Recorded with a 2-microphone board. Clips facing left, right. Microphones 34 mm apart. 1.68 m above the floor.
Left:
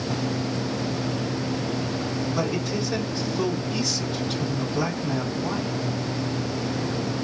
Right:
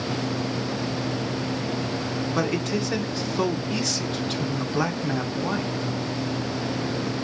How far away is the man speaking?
About 1.6 m.